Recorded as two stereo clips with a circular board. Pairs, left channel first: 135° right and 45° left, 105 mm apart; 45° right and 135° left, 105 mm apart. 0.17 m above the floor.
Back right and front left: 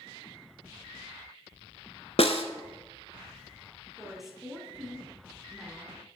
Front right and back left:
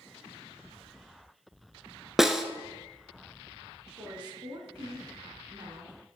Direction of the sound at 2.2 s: 140° right.